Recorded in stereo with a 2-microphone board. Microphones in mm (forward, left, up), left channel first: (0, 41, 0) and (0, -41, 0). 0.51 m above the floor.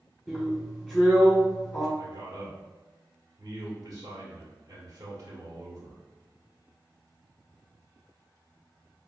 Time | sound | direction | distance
0.3 | a drill | 5° left (ahead or behind) | 1.7 m
2.0 | a man speaking | 40° right (ahead or behind) | 1.3 m